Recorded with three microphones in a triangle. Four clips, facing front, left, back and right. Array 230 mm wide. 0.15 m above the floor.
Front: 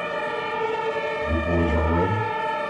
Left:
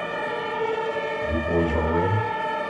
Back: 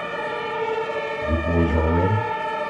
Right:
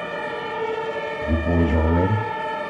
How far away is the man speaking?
About 3.5 m.